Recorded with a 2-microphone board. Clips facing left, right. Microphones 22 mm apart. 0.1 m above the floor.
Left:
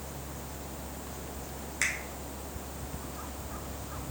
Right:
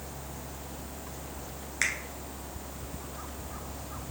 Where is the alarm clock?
No alarm clock in this recording.